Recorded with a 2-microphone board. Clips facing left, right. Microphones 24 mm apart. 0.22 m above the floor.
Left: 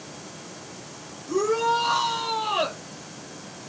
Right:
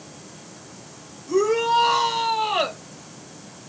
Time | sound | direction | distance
1.3 | a shout | 35° right (ahead or behind) | 5 m